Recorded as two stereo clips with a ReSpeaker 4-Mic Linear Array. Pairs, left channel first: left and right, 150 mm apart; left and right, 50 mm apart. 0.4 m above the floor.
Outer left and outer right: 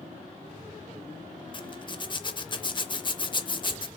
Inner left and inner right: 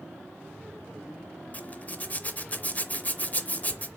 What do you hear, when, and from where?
1.5 s a zipper: 35° left (ahead or behind), 0.6 m